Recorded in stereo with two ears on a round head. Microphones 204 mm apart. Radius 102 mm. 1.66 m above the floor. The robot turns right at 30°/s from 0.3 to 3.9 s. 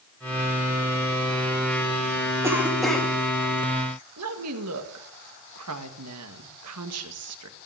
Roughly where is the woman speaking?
Right.